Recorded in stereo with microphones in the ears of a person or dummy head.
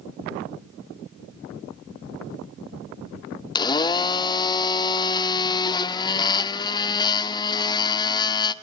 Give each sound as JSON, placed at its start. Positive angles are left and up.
{"t": 3.5, "sound": "a blender", "side_deg": 20, "distance_m": 0.6}